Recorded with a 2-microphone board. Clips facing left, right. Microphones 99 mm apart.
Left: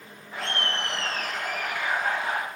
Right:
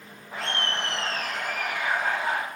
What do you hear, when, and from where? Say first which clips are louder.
0.3 s laughter: even; 40° right (ahead or behind), 4 m; by 2.4 s 35° right (ahead or behind), 6 m